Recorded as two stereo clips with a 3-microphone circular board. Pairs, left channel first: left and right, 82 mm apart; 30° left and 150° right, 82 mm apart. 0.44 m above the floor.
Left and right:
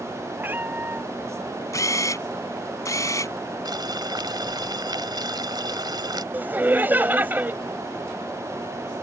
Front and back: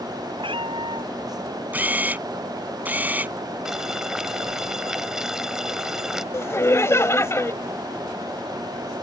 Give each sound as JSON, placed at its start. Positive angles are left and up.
{"t": 0.4, "sound": "a cat meowing", "azimuth_deg": -160}
{"t": 1.7, "sound": "a camera shutter", "azimuth_deg": 140}
{"t": 3.6, "sound": "boiling", "azimuth_deg": -65}
{"t": 6.3, "sound": "laughter", "azimuth_deg": -25}